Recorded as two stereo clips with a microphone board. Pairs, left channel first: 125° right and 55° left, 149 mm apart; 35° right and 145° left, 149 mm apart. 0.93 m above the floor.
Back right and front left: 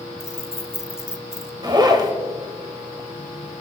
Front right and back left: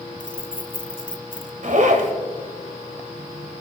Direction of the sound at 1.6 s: 115° left.